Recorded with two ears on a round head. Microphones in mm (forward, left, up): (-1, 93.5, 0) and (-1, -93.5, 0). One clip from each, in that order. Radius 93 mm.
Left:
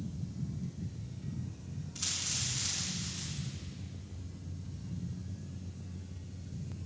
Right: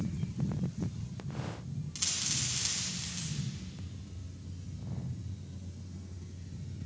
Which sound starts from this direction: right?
A dropped coin, at 1.9 s.